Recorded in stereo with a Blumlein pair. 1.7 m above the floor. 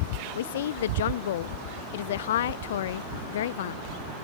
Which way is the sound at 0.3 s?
60° left.